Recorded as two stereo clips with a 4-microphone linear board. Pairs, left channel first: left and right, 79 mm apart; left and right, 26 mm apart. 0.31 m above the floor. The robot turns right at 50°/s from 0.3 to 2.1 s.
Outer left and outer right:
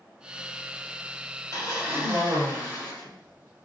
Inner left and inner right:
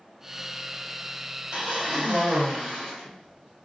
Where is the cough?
45° right (ahead or behind), 1.9 m; by 3.6 s 25° right (ahead or behind), 1.9 m.